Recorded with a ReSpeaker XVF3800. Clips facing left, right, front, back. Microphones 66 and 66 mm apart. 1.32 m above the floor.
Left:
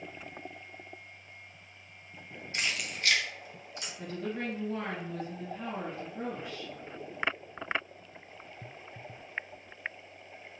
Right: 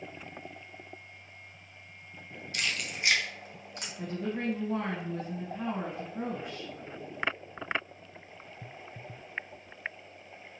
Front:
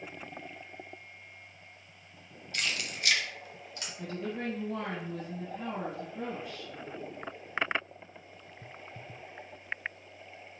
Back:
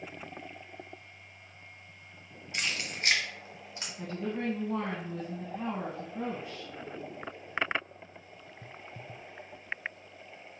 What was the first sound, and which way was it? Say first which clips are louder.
Keys jangling: even, even; 125° left.